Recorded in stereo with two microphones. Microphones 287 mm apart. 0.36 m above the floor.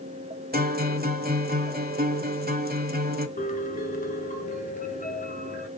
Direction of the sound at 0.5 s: 30° right (ahead or behind).